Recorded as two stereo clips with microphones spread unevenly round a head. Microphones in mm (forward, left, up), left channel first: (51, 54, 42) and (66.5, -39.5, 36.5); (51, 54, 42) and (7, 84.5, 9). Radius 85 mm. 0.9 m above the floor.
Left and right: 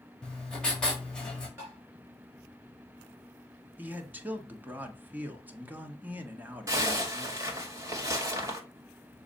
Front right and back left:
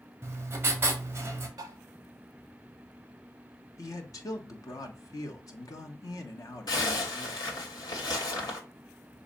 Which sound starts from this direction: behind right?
Tapping, at 1.6 s.